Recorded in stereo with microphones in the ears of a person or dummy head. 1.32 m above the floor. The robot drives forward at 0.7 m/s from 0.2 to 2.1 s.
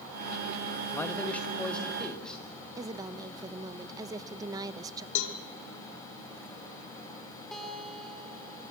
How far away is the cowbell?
About 1.4 m.